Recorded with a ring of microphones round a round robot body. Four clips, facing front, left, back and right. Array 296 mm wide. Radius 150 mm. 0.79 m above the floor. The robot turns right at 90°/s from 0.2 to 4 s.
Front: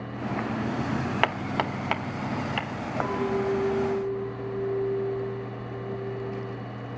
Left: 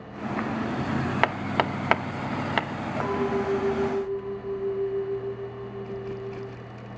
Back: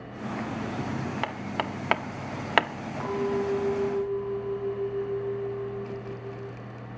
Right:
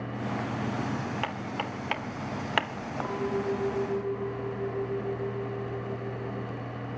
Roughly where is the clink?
Ahead.